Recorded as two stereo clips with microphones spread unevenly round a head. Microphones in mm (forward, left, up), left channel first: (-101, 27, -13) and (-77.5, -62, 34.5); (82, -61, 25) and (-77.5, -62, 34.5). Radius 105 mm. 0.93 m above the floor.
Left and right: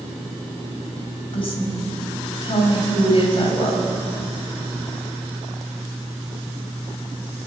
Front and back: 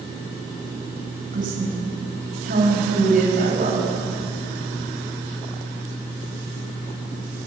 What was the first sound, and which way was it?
A woman speaking, 130° left.